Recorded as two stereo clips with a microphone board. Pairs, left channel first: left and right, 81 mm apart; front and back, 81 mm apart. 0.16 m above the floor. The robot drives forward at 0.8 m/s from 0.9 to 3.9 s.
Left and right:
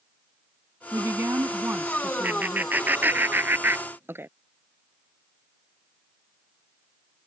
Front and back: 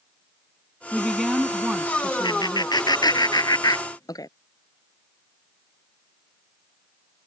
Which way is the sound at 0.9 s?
65° right.